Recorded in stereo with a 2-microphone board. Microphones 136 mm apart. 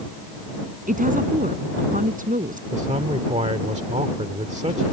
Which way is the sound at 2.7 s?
60° right (ahead or behind).